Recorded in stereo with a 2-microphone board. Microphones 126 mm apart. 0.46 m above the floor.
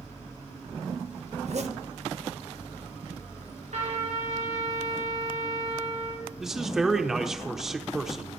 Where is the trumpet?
75° right (ahead or behind), 4.5 m.